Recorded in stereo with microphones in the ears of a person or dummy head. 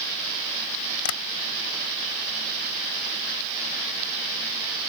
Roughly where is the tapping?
Left.